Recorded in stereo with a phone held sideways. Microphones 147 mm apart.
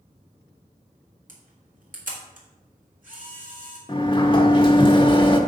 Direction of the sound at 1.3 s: 65° right (ahead or behind).